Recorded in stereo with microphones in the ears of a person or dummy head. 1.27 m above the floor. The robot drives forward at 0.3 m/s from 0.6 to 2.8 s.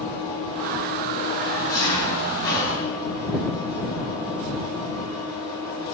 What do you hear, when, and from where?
0.0 s an engine running: 15° left (ahead or behind), 7.5 m